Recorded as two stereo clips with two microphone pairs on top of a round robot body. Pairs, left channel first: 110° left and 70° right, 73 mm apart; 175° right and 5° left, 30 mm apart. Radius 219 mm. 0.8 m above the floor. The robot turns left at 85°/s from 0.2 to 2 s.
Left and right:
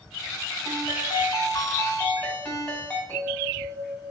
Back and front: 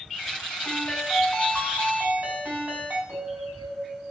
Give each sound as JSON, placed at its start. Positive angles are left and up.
{"t": 0.7, "sound": "a ringtone", "azimuth_deg": 145, "distance_m": 3.0}
{"t": 3.1, "sound": "a bell", "azimuth_deg": 0, "distance_m": 5.5}